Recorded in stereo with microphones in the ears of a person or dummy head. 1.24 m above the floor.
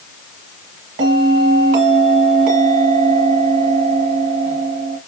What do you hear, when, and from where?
1.0 s a bell: 40° right (ahead or behind), 1.5 m